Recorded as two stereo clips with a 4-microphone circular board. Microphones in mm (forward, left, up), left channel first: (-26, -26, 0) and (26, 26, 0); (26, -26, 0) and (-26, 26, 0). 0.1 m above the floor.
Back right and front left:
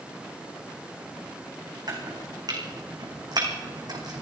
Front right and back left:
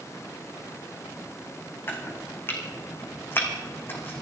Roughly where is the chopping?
Ahead.